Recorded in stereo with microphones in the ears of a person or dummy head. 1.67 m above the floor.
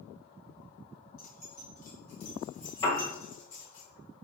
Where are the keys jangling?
60° left (ahead or behind), 1.7 m; by 3.8 s 75° left (ahead or behind), 3 m.